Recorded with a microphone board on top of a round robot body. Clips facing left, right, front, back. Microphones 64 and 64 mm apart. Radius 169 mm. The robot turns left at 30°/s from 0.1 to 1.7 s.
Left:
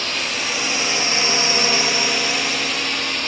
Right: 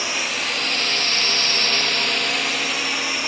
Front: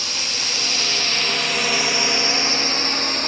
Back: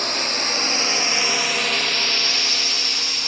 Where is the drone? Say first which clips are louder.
Even, back 4 dB; 170° right; by 3.3 s 10° right.